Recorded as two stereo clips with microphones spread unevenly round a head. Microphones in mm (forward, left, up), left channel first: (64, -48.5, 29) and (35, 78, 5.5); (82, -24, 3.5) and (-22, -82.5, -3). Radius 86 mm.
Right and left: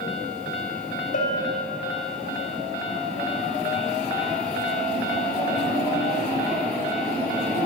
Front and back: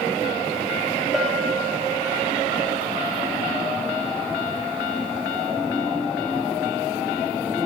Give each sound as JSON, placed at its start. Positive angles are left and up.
{"t": 1.1, "sound": "a bell", "azimuth_deg": -60, "distance_m": 1.8}